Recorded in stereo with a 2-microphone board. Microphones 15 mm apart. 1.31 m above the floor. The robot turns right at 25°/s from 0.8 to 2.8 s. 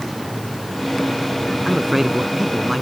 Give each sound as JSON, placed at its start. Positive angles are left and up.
{"t": 1.6, "sound": "a man speaking", "side_deg": -35}